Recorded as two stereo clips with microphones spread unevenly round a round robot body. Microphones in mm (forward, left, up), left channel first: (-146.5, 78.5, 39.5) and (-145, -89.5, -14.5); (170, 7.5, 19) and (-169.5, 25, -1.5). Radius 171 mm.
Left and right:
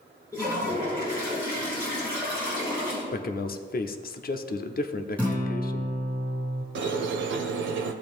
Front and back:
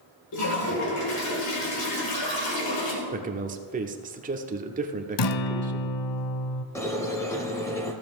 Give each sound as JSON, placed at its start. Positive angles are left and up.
{"t": 0.3, "sound": "a toilet flushing", "azimuth_deg": 5, "distance_m": 2.5}
{"t": 3.1, "sound": "a man speaking", "azimuth_deg": 125, "distance_m": 0.8}
{"t": 5.2, "sound": "a guitar", "azimuth_deg": 15, "distance_m": 0.7}
{"t": 6.8, "sound": "a squeak", "azimuth_deg": -85, "distance_m": 0.6}